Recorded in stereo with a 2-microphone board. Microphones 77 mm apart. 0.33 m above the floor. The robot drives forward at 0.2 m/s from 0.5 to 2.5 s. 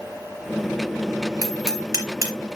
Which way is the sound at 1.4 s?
50° right (ahead or behind).